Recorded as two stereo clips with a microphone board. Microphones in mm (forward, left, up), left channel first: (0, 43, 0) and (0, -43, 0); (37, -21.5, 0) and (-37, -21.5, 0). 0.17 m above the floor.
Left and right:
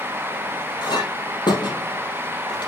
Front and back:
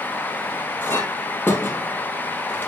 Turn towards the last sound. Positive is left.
turn(degrees=60)